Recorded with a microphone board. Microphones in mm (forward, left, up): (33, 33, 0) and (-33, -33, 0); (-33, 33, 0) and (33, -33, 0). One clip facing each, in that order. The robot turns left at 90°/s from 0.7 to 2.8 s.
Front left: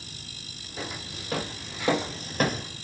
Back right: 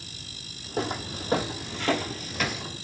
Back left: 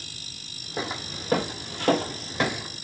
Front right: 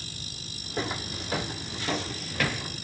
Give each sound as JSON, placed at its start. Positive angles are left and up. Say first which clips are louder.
{"t": 0.8, "sound": "footsteps", "louder": "back right 8 dB, even", "azimuth_deg": -145, "distance_m": 2.0}